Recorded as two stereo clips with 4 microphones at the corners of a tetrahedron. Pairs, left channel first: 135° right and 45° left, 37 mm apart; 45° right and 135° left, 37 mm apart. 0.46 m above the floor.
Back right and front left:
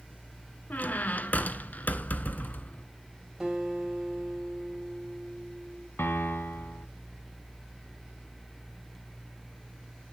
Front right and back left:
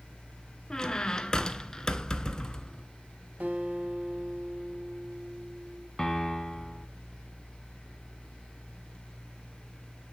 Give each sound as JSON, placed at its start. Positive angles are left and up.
{"t": 0.7, "sound": "a squeak", "azimuth_deg": -110, "distance_m": 0.6}
{"t": 3.4, "sound": "a guitar", "azimuth_deg": 125, "distance_m": 3.0}
{"t": 6.0, "sound": "a piano", "azimuth_deg": -125, "distance_m": 0.9}